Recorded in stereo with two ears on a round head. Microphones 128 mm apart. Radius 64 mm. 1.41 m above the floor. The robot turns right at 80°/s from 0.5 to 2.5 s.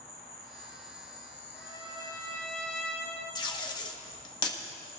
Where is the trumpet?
95° left, 3 m; by 3.2 s 170° left, 3 m.